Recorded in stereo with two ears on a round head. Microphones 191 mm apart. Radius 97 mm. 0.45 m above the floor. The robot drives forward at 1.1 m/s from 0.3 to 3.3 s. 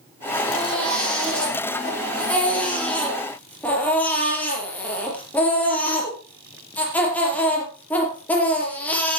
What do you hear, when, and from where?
0.5 s a baby crying: 5° left (ahead or behind), 7.5 m